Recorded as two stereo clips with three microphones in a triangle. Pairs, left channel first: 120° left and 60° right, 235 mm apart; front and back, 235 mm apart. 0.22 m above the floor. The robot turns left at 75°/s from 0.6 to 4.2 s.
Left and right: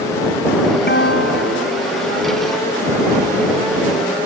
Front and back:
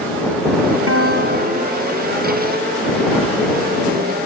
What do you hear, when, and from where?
0.9 s a guitar: 165° left; by 2.0 s 75° left